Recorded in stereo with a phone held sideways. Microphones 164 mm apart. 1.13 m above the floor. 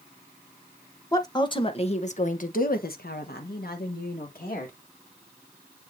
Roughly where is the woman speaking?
Left.